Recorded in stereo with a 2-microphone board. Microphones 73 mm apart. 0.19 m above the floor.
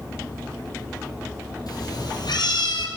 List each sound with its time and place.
1.7 s a cat meowing: 60° left (ahead or behind), 3 m; by 2.9 s 75° left (ahead or behind), 2.5 m